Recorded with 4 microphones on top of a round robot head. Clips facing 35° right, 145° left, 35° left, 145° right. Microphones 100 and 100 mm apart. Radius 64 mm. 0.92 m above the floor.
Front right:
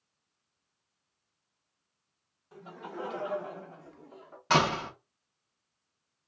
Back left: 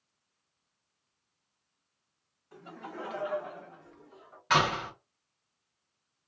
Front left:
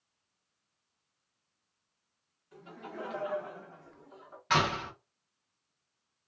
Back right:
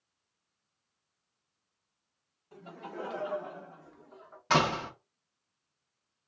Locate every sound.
2.5 s laughter: 110° right, 1.3 m; by 4.4 s 40° right, 0.9 m
4.5 s a door slam: 90° right, 0.8 m